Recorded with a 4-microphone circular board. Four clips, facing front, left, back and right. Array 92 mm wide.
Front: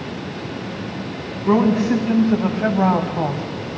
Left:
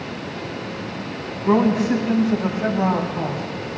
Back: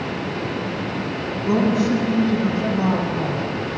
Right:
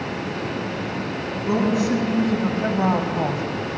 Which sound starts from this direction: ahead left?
A woman speaking, at 1.4 s.